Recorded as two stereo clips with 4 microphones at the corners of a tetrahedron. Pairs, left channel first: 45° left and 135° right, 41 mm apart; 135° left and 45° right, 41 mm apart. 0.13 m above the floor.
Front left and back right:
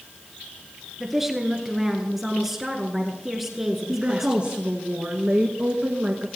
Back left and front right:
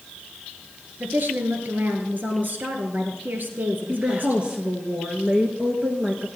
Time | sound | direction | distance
1.0 | a woman speaking | 55° right | 1.5 m
3.9 | a woman speaking | 90° right | 1.4 m